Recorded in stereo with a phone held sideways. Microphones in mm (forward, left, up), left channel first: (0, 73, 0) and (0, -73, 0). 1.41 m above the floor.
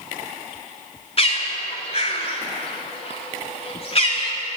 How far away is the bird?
About 3 m.